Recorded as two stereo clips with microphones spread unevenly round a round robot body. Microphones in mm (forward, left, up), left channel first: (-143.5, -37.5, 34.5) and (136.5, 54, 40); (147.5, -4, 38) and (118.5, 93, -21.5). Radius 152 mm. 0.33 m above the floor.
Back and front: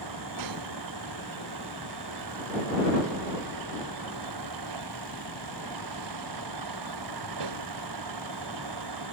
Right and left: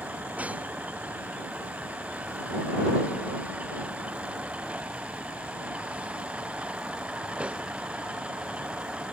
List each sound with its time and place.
0.0 s a vehicle: 30° left